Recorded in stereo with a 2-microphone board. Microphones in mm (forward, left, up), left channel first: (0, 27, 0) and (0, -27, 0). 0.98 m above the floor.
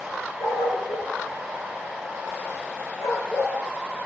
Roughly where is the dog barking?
Left.